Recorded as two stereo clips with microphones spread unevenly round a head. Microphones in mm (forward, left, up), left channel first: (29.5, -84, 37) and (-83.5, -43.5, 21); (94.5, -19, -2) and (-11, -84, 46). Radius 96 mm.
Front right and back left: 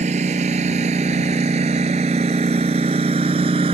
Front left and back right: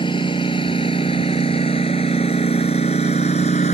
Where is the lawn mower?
100° left; by 3.8 s 95° left.